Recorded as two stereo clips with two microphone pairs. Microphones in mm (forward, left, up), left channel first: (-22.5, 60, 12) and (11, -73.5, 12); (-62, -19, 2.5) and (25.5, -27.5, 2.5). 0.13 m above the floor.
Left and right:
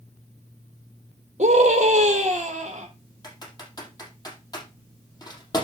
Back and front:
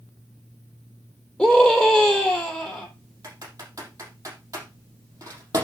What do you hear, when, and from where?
1.4 s a scream: 105° right, 4 m
3.2 s typing on a keyboard: 45° left, 4.5 m